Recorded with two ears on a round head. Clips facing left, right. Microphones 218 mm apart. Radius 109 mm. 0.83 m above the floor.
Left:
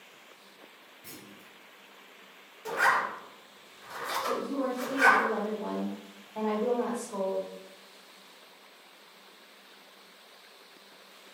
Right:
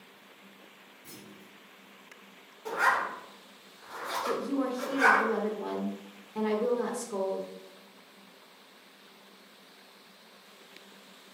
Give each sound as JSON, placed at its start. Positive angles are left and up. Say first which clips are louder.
{"t": 1.0, "sound": "a clunk", "louder": "even", "side_deg": 80, "distance_m": 1.8}
{"t": 2.6, "sound": "a zipper", "louder": "left 1 dB", "side_deg": 35, "distance_m": 1.4}
{"t": 4.3, "sound": "a woman speaking", "louder": "right 1 dB", "side_deg": -35, "distance_m": 0.5}